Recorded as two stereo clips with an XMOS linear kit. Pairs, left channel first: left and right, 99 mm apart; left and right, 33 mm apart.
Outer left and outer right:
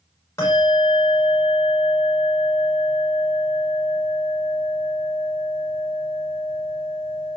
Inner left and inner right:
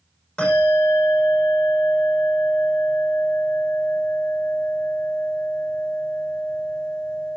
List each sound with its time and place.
0.4 s a bell: 25° left (ahead or behind), 9.5 m